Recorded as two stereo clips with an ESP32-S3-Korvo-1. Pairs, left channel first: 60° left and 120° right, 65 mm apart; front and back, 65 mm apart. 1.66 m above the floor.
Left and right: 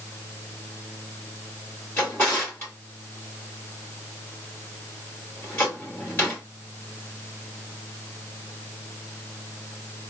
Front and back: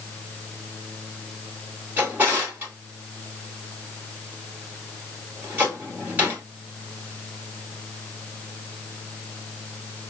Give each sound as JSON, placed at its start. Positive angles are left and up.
{"t": 2.0, "sound": "a drawer", "azimuth_deg": 115, "distance_m": 2.5}